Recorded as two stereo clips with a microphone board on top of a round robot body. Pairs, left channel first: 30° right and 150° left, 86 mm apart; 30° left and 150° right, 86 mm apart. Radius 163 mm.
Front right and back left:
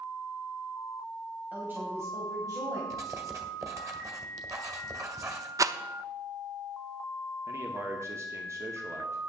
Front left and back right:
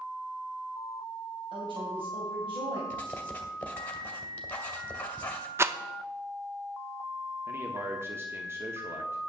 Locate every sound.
1.5 s a woman speaking: 135° right, 2.5 m; by 2.8 s 165° right, 3 m
2.9 s writing: 100° left, 1.9 m
5.6 s a rattle: 170° left, 0.9 m
7.5 s a man speaking: 175° left, 1.6 m